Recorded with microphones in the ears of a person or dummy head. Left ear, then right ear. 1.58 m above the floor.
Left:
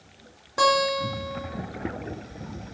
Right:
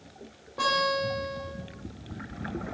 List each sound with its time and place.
0.6 s a guitar: 65° left (ahead or behind), 3 m